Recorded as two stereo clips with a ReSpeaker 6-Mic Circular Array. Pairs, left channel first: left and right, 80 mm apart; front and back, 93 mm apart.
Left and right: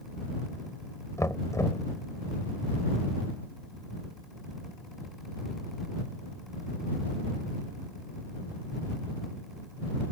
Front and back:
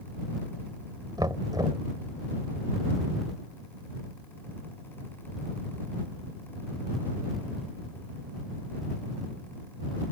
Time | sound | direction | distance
1.2 | knocking | 140° left | ?